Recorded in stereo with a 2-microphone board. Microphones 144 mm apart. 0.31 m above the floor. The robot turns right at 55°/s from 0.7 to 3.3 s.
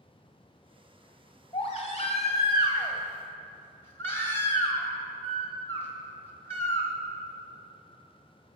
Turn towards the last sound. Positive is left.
turn(degrees=155)